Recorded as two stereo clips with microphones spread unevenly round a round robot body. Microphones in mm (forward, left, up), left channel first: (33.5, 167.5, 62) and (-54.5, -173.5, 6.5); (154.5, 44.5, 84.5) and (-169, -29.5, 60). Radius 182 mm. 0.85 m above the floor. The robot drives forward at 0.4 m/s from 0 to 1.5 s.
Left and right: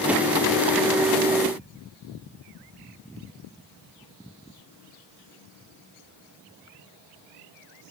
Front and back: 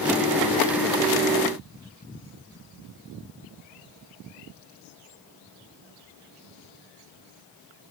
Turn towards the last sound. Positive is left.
No sound to turn to.